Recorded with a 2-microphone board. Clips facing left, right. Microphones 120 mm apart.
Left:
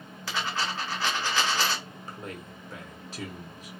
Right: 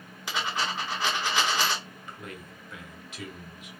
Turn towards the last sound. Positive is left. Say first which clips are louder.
# left 2 dB
turn(degrees=35)  # may be behind; listen again after turning